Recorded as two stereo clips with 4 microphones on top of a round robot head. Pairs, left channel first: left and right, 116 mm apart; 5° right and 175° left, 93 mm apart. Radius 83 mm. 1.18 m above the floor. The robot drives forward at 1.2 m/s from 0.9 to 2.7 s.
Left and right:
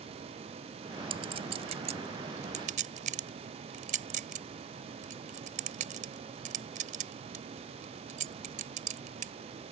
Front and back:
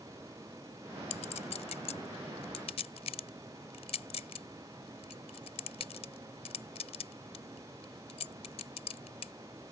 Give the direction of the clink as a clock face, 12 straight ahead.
1 o'clock.